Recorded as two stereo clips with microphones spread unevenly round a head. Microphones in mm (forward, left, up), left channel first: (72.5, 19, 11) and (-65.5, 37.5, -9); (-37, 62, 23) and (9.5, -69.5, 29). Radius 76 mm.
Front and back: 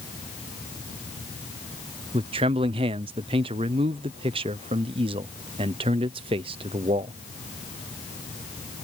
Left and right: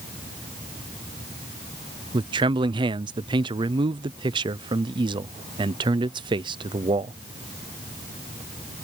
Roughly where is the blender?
No blender in this recording.